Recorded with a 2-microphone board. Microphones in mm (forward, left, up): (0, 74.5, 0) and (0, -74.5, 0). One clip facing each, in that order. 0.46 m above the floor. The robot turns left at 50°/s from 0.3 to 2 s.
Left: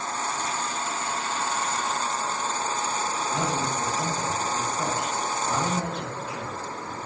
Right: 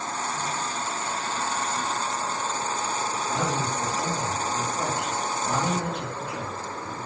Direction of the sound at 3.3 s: 10° right (ahead or behind).